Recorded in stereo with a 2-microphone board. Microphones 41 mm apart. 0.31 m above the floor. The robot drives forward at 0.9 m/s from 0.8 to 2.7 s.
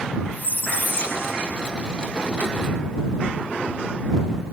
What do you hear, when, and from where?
0.3 s a squeak: 50° left (ahead or behind); by 1.9 s 45° left (ahead or behind)